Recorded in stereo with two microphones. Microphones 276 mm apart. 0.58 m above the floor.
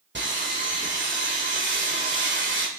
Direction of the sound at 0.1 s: 40° right (ahead or behind).